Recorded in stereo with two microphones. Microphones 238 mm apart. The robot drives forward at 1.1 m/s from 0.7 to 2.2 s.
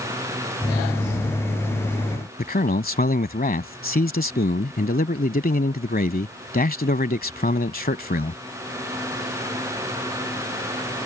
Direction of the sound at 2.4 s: 40° left (ahead or behind).